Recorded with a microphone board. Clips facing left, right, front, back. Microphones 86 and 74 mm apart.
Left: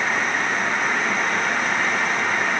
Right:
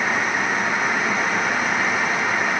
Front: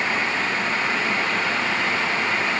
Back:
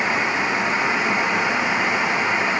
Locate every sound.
Only background noise.